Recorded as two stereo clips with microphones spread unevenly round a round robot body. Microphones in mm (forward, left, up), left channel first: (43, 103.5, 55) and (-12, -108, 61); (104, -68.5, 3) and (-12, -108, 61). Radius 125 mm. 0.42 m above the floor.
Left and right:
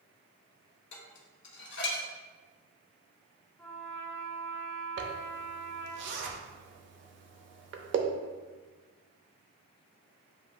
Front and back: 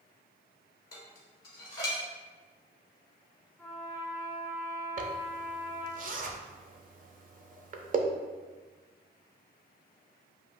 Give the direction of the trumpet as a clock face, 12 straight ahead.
12 o'clock.